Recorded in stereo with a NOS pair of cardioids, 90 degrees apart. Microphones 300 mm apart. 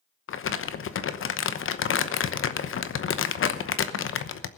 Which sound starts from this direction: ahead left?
Crumpling, at 0.3 s.